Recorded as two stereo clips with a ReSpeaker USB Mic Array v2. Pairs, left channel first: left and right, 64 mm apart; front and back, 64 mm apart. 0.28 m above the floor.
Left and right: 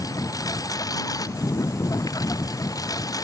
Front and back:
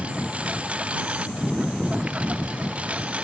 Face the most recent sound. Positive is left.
turn(degrees=110)